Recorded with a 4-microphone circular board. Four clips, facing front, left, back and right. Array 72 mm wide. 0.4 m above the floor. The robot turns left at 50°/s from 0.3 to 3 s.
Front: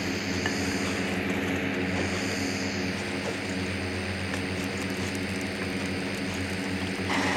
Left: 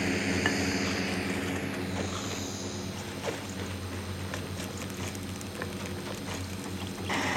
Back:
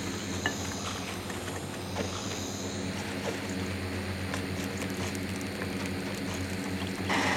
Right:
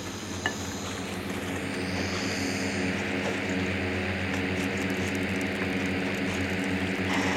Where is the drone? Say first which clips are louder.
Left 5 dB, front 4 dB; 60° left; by 7.4 s 75° right.